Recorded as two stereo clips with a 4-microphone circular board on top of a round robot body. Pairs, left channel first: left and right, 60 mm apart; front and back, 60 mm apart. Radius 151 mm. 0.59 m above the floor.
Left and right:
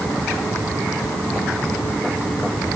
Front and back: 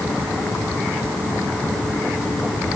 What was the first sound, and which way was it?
Only background noise.